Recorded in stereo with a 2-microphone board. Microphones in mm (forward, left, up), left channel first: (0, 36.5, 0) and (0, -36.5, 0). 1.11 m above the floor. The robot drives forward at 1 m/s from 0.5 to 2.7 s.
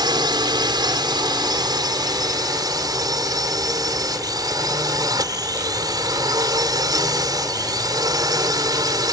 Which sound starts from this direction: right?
A drone, at 0.0 s.